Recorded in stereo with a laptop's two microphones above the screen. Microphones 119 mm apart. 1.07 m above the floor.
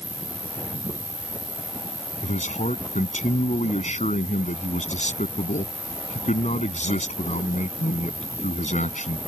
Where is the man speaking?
85° left.